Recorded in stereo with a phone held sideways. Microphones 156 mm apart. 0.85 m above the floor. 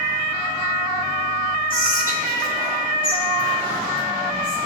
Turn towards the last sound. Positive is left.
turn(degrees=65)  # may be behind; listen again after turning